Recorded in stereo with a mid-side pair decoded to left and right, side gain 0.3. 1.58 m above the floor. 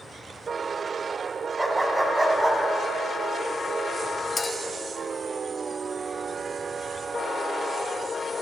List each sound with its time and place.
1.6 s a dog barking: 15° right, 5.5 m; by 2.6 s 25° right, 6.5 m
4.4 s a clink: 40° left, 3.5 m